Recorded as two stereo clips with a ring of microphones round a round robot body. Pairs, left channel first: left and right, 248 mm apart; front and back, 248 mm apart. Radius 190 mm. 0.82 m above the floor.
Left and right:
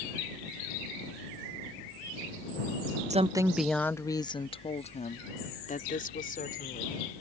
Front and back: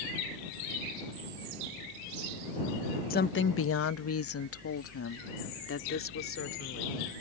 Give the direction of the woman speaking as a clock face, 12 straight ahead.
1 o'clock.